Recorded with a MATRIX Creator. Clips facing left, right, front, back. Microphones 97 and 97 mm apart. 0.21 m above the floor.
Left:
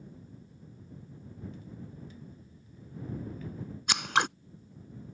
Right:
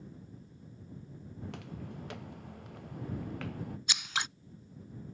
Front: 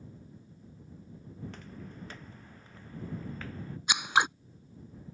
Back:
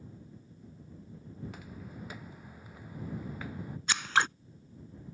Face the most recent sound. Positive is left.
turn(degrees=75)